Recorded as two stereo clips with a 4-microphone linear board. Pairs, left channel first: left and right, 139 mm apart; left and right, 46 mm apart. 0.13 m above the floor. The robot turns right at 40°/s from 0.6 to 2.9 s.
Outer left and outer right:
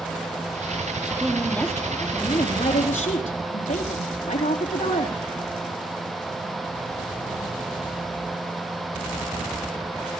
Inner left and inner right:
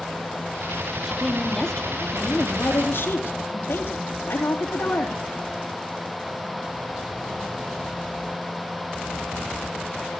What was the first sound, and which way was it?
A woman speaking, 10° right.